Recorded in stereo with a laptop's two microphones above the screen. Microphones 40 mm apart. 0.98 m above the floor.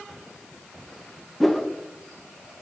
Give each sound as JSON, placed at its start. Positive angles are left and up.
{"t": 1.4, "sound": "a whoosh", "side_deg": 0, "distance_m": 0.6}